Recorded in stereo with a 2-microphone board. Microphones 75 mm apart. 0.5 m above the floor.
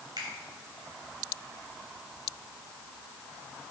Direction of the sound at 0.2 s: 65° right (ahead or behind).